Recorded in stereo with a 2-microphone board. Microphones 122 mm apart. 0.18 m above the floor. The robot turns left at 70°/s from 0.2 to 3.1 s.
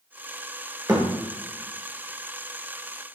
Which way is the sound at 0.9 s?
30° right (ahead or behind).